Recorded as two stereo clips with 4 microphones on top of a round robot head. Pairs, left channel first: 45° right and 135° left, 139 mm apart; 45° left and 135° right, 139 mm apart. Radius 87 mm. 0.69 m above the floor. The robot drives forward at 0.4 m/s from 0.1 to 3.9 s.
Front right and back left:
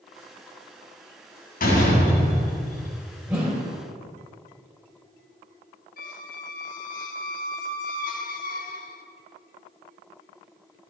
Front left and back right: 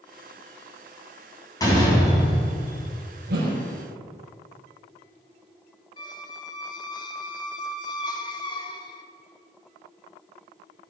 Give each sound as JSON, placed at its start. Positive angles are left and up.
{"t": 1.6, "sound": "a door slam", "azimuth_deg": -20, "distance_m": 3.5}
{"t": 3.3, "sound": "a whoosh", "azimuth_deg": -145, "distance_m": 4.5}
{"t": 6.0, "sound": "a squeak", "azimuth_deg": -15, "distance_m": 0.7}